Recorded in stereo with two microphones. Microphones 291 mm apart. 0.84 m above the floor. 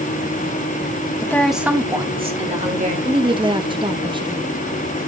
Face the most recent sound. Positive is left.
turn(degrees=-15)  # may be behind; listen again after turning